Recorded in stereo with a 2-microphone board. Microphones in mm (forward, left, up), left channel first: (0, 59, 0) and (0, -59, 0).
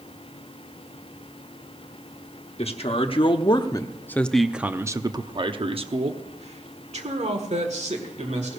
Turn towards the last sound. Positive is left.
turn(degrees=-75)  # may be behind; listen again after turning